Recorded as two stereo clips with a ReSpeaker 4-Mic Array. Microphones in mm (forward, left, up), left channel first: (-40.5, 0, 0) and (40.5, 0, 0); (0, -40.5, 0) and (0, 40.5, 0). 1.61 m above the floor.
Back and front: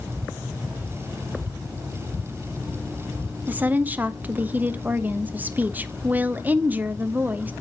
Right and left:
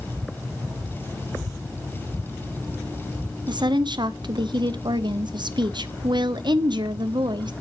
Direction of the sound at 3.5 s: 70° left.